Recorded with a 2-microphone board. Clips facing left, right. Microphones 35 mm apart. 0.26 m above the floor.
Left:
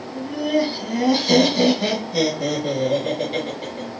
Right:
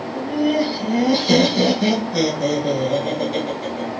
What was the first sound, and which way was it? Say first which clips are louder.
Laughter: right 2 dB; 15° right (ahead or behind).